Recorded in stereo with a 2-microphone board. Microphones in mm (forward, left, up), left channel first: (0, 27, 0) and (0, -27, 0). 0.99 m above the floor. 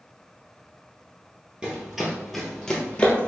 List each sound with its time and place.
1.6 s running footsteps: 20° right (ahead or behind), 1.1 m; by 3.3 s 25° left (ahead or behind), 1.1 m